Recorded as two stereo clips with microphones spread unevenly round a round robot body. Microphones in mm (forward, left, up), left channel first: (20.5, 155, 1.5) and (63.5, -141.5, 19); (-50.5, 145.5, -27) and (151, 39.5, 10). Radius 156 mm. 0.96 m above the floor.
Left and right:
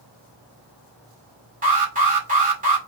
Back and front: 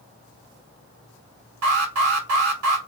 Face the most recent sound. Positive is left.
turn(degrees=-15)